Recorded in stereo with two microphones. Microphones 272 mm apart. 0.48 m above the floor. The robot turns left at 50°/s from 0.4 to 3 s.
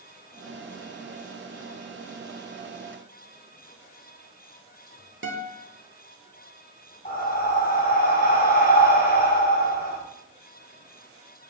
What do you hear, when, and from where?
5.2 s a guitar: 45° right (ahead or behind), 1.0 m
7.0 s breathing: 35° left (ahead or behind), 1.3 m